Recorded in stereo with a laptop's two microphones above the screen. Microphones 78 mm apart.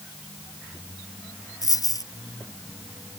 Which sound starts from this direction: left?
A dropped coin, at 1.6 s.